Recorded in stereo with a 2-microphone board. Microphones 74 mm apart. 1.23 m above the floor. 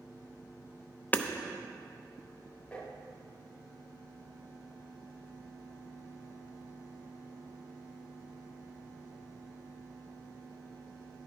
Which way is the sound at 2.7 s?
15° left (ahead or behind).